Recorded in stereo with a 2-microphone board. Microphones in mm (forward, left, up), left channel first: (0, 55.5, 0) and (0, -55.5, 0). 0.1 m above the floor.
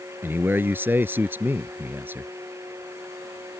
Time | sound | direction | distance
0.2 | a man speaking | 20° right (ahead or behind) | ?